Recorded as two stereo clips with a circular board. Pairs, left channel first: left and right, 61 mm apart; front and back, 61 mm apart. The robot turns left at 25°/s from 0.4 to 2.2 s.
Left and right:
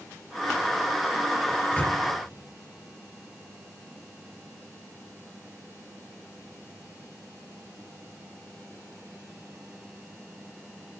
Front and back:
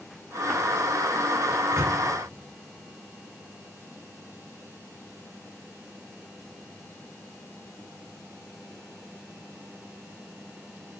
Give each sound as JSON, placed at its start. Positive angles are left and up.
{"t": 1.5, "sound": "a microwave", "azimuth_deg": 155, "distance_m": 3.5}